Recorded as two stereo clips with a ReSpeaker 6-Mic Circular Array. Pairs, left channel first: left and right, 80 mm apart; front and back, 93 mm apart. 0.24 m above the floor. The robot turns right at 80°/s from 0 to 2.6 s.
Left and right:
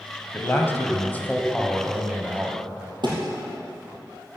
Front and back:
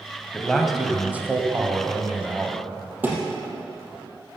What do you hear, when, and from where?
0.3 s a man speaking: 65° left, 1.4 m; by 2.6 s 115° right, 1.4 m
3.0 s a thud: 110° right, 3.5 m